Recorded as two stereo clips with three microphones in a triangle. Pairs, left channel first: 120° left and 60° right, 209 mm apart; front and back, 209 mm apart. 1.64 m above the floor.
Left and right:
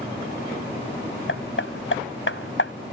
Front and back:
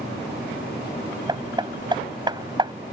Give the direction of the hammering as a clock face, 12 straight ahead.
8 o'clock.